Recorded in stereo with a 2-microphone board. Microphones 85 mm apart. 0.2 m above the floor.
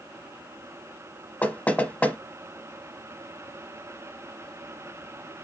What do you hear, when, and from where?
1.4 s knocking: 20° left (ahead or behind), 0.8 m